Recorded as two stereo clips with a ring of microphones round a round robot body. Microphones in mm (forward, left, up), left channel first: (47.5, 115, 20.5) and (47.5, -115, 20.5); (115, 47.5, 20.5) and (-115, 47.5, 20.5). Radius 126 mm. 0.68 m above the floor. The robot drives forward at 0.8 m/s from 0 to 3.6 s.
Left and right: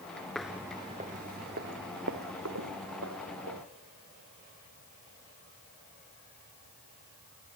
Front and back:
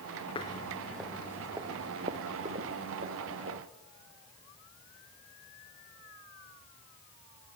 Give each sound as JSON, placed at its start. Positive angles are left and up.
{"t": 0.3, "sound": "footsteps", "azimuth_deg": 5, "distance_m": 0.6}